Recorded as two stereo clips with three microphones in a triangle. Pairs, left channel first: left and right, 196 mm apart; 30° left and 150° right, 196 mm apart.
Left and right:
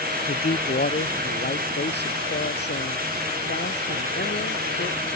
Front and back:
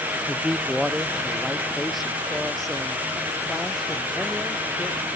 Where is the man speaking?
125° left; by 5.1 s 115° left.